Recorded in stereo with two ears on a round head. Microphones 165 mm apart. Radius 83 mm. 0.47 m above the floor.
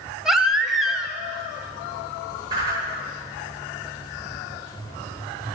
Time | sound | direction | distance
0.2 | a baby crying | centre (ahead or behind) | 0.8 m
2.5 | a whoosh | 25° right (ahead or behind) | 6 m